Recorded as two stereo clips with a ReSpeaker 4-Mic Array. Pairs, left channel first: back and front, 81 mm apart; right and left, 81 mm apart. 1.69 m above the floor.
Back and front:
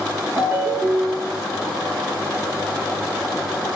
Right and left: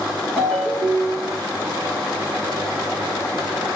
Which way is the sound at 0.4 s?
15° right.